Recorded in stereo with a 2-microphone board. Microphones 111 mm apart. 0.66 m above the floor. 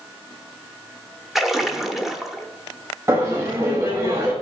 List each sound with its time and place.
1.4 s a splash: 5° right (ahead or behind), 0.7 m
3.1 s laughter: 25° right (ahead or behind), 1.2 m